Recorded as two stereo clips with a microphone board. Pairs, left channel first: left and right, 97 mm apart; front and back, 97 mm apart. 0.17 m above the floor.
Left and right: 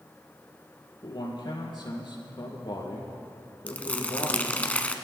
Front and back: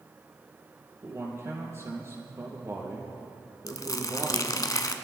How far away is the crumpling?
About 0.8 m.